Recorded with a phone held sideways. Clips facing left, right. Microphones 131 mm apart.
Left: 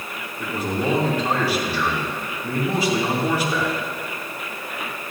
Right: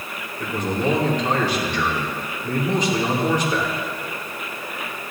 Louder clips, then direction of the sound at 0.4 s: Right 1 dB; 10° left (ahead or behind).